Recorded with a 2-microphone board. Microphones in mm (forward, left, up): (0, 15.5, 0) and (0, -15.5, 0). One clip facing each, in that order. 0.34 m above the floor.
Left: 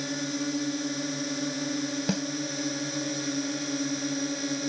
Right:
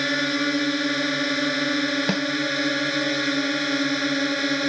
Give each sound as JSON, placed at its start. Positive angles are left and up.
{"t": 0.0, "sound": "a drone", "side_deg": -55}
{"t": 2.1, "sound": "a snare drum", "side_deg": -35}